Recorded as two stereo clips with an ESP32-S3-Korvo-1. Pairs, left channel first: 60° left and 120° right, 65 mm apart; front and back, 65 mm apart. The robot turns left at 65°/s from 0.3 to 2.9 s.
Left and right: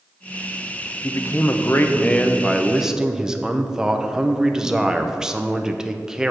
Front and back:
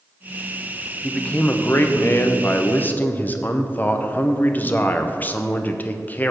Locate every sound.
1.0 s a man speaking: 75° left, 0.7 m; by 6.3 s 45° right, 0.7 m